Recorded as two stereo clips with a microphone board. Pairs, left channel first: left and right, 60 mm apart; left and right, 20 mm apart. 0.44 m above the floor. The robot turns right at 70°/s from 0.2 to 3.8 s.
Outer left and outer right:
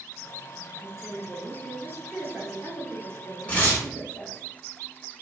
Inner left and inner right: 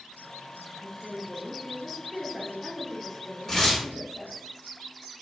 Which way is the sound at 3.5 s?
25° left (ahead or behind).